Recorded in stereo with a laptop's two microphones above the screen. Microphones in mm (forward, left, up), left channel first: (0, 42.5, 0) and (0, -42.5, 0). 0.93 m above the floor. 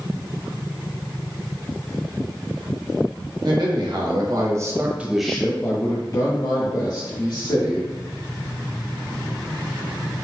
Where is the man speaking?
60° right (ahead or behind), 1.3 m; by 7.9 s 65° left (ahead or behind), 1.8 m.